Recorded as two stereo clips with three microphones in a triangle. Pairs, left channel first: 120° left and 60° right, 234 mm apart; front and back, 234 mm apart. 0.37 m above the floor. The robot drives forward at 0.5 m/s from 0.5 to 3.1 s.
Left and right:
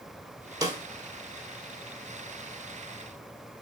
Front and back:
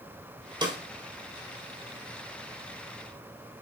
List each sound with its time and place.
0.6 s a snare drum: 125° right, 1.4 m; by 0.8 s 130° right, 1.4 m